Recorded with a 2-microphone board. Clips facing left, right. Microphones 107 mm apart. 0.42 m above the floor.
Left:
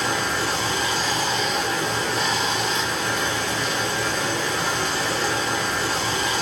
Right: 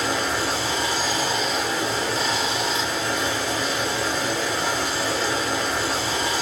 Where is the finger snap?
I don't hear a finger snap.